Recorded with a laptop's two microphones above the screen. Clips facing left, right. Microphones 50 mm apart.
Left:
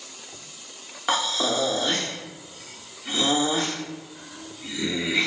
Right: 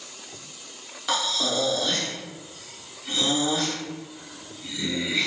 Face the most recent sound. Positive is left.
turn(degrees=30)  # may be behind; listen again after turning